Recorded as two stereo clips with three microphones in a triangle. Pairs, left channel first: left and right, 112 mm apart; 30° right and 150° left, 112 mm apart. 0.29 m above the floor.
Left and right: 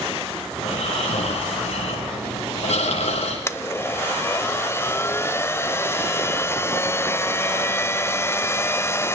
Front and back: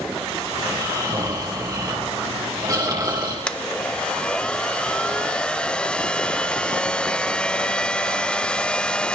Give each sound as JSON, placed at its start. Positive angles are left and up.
{"t": 0.6, "sound": "snoring", "azimuth_deg": 95, "distance_m": 8.5}
{"t": 3.5, "sound": "a blender", "azimuth_deg": 45, "distance_m": 0.9}